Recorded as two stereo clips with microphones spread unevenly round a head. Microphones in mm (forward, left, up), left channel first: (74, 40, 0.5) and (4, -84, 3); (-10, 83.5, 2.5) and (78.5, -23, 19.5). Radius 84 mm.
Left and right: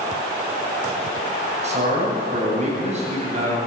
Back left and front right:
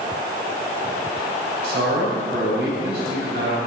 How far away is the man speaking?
About 9 m.